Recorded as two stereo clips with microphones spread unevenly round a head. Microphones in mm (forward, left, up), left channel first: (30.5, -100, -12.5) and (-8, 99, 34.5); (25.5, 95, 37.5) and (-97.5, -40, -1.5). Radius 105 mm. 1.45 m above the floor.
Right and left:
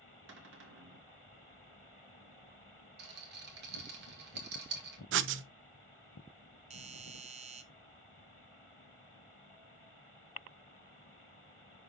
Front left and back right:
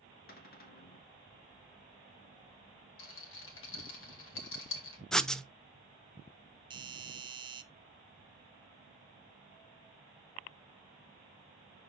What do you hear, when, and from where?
0.3 s a cupboard door: 80° left, 1.9 m
3.0 s a rattle: 60° left, 2 m
5.1 s writing: 135° left, 0.5 m
6.7 s a doorbell: 165° left, 0.9 m